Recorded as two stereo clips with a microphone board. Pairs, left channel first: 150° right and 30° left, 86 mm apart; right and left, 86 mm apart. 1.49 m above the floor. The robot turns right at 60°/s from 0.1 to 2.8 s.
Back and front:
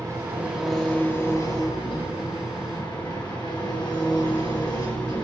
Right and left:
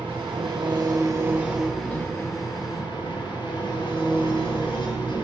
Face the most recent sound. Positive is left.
turn(degrees=-115)